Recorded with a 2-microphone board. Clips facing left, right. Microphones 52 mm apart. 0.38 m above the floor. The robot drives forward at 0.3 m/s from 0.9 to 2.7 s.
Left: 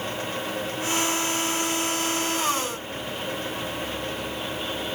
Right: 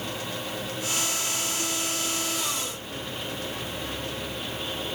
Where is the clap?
I don't hear a clap.